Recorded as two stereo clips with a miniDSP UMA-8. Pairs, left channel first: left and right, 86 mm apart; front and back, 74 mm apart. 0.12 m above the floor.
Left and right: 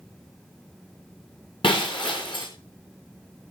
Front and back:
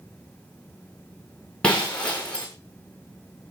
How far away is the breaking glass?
About 6 m.